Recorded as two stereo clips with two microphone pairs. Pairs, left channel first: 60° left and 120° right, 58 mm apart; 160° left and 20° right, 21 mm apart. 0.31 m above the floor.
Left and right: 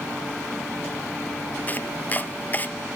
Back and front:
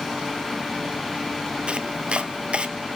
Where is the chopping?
5° right, 1.2 m.